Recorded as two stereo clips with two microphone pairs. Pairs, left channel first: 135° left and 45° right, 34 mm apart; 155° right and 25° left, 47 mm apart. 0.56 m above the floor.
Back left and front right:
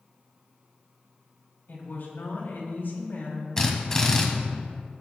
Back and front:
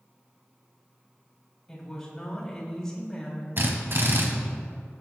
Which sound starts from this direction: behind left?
A woman speaking, at 1.7 s.